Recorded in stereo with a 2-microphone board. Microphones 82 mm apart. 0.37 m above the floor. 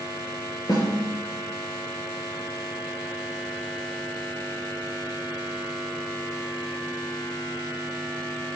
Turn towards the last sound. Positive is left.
turn(degrees=60)  # may be behind; listen again after turning